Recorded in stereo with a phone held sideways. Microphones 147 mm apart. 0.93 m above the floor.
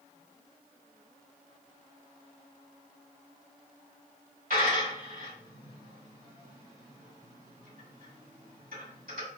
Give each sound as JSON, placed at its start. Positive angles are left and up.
{"t": 4.5, "sound": "a dropped coin", "side_deg": -75, "distance_m": 1.7}